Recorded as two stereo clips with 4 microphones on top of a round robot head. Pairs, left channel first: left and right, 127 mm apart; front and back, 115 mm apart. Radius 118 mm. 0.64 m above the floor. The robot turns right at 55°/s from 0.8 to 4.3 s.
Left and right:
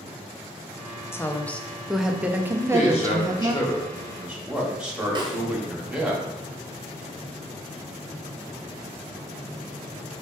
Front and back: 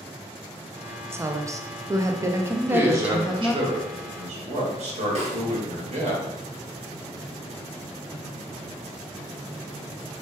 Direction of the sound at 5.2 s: 145° right.